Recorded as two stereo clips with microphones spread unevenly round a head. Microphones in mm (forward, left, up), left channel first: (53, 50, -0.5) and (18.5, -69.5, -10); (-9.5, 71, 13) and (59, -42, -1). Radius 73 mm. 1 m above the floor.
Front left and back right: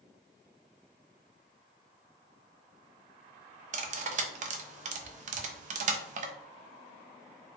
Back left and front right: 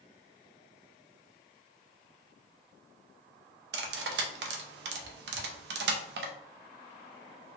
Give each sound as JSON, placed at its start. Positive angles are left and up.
{"t": 3.7, "sound": "cutlery clinking", "azimuth_deg": -80, "distance_m": 0.5}